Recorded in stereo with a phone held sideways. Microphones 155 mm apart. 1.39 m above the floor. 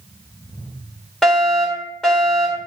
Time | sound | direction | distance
1.2 | a fire alarm | 5° left (ahead or behind) | 3.5 m